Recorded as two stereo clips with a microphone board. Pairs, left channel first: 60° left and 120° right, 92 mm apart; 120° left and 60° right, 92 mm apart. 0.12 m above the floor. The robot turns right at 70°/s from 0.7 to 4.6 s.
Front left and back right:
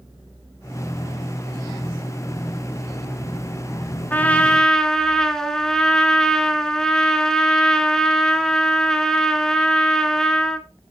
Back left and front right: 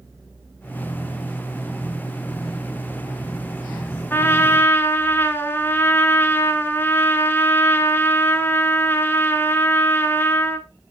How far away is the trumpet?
About 1.1 m.